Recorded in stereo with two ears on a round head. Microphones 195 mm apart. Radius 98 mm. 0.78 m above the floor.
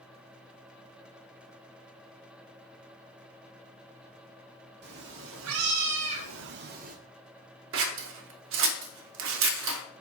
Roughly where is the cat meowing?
Right.